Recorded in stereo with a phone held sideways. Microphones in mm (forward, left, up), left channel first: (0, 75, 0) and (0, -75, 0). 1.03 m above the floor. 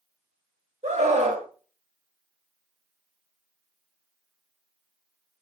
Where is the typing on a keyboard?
No typing on a keyboard in this recording.